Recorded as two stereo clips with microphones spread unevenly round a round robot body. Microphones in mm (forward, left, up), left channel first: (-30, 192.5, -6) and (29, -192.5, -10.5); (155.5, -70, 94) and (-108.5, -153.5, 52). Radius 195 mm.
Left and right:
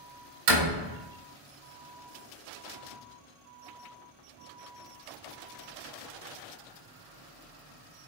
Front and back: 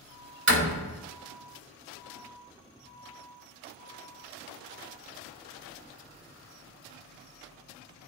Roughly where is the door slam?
Behind right.